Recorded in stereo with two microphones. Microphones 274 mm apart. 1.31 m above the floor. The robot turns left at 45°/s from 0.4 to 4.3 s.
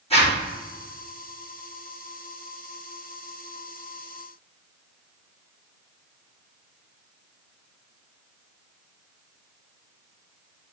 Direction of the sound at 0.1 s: 20° left (ahead or behind).